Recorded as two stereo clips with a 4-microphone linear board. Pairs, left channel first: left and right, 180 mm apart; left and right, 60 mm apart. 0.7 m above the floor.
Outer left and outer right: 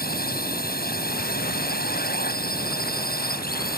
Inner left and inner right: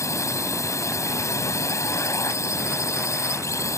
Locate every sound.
0.0 s a drone: 60° left (ahead or behind)